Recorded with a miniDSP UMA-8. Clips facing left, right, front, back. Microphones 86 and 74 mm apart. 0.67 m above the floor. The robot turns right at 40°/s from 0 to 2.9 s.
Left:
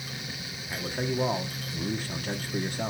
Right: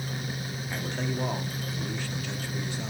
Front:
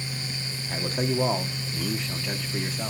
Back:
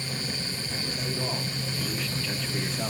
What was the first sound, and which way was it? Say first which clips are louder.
A man speaking: left 2 dB, front 9 dB; straight ahead.